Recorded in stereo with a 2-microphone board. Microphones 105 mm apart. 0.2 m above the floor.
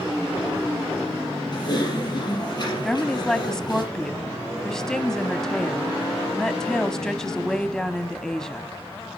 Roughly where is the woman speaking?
Centre.